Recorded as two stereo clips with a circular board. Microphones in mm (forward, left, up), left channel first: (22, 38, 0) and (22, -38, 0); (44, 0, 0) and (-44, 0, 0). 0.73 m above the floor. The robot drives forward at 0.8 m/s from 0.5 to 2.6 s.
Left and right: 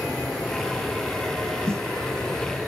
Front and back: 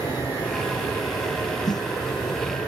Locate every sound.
0.0 s an aircraft: 15° left; by 2.7 s 10° left
1.7 s a snare drum: 40° right